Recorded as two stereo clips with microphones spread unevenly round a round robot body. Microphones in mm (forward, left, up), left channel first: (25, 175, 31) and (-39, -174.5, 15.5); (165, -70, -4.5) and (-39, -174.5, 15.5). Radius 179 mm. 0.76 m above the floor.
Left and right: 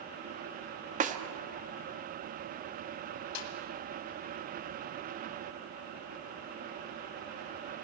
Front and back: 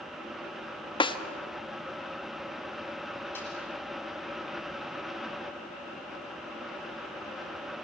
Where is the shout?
I don't hear a shout.